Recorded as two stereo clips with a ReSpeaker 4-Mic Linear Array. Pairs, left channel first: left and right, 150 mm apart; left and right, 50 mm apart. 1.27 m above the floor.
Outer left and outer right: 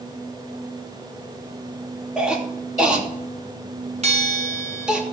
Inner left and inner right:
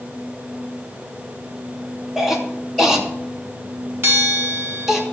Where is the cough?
5° right (ahead or behind), 2.5 m.